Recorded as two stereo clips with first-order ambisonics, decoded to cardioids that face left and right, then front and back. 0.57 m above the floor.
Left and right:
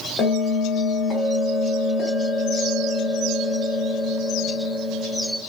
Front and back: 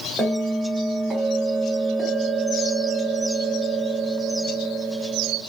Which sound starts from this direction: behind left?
A bell, at 0.2 s.